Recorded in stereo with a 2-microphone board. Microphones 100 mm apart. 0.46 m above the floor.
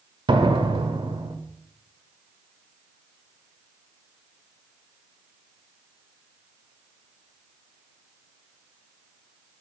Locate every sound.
0.3 s a door slam: 55° right (ahead or behind), 1.3 m